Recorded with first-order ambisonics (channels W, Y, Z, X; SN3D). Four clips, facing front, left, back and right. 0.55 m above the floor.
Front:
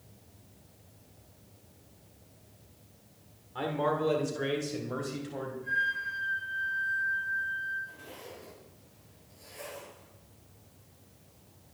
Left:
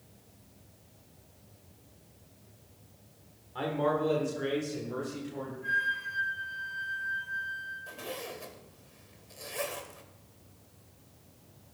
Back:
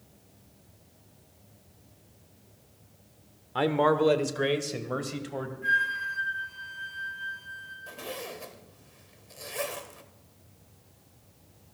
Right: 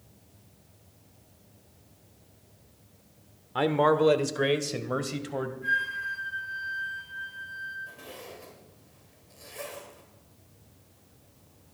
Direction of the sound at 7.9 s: 155° left.